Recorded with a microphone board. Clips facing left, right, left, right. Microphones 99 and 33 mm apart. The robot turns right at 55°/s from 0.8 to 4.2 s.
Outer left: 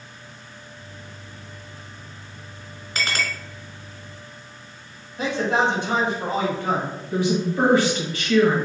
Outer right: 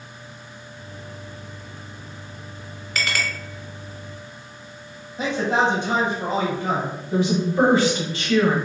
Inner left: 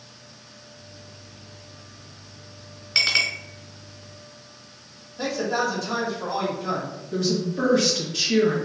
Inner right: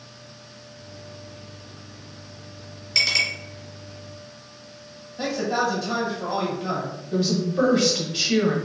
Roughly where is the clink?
Left.